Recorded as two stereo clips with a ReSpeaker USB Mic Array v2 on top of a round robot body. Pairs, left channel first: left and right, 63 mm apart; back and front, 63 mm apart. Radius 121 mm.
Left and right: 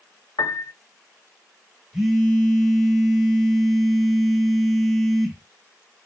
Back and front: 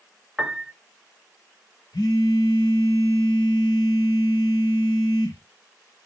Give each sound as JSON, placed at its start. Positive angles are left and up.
{"t": 0.4, "sound": "a piano", "azimuth_deg": 90, "distance_m": 1.0}
{"t": 1.9, "sound": "a phone buzzing", "azimuth_deg": 180, "distance_m": 3.5}